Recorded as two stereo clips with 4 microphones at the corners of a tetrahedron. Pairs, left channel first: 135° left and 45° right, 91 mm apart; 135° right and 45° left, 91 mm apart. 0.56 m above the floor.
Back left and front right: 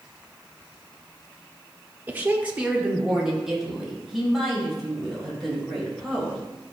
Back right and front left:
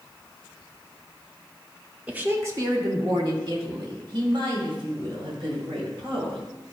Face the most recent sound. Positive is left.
turn(degrees=50)